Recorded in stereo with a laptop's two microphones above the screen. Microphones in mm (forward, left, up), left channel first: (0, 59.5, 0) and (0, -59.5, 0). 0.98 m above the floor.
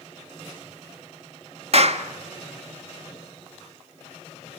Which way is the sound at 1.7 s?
55° right (ahead or behind).